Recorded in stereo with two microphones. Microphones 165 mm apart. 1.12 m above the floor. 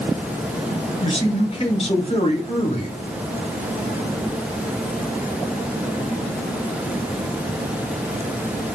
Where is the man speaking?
35° left (ahead or behind), 0.9 m.